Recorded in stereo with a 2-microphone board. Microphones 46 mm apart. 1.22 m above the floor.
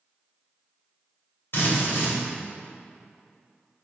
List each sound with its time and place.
1.5 s a drill: 60° left (ahead or behind), 3.5 m